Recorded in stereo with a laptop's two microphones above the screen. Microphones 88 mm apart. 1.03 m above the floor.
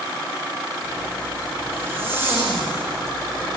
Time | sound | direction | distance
0.8 | a zipper | 30° right (ahead or behind) | 9 m